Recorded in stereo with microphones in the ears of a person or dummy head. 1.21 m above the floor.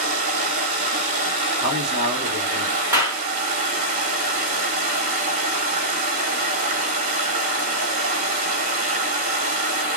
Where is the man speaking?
35° right (ahead or behind), 1.5 m.